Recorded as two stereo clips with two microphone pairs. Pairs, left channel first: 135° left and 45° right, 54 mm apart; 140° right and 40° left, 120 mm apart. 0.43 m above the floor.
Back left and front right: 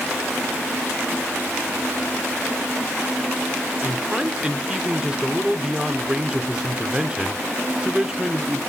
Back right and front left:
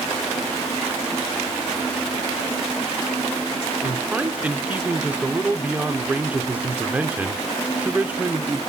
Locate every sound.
3.8 s a man speaking: 10° right, 0.8 m